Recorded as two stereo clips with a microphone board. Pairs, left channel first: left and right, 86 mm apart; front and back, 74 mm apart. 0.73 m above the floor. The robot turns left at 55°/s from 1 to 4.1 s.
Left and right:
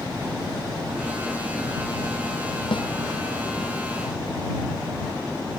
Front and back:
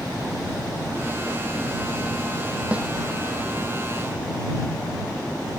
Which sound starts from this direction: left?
A snare drum, at 2.7 s.